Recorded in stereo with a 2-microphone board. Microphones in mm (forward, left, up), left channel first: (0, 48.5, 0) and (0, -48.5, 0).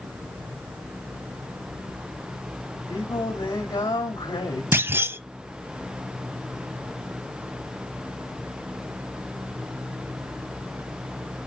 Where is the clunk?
25° right (ahead or behind), 0.5 m.